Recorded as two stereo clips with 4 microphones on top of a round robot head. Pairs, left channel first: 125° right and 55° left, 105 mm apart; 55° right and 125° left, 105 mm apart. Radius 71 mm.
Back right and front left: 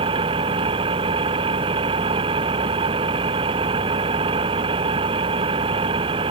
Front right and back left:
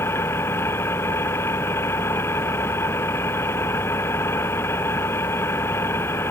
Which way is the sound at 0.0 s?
15° left.